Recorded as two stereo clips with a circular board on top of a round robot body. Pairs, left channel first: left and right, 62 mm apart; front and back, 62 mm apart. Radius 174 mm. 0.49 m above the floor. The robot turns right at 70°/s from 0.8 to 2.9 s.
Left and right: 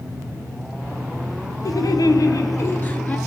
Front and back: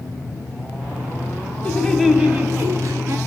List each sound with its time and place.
1.6 s laughter: 65° left, 2 m; by 3.2 s 155° left, 2 m